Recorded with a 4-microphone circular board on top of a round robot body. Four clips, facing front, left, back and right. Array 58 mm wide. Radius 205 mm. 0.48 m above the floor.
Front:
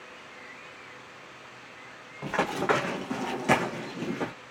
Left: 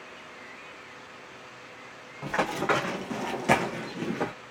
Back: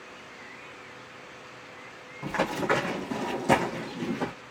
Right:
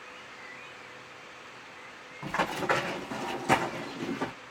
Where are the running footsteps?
25° left, 1.5 m; by 4.3 s 70° left, 0.7 m.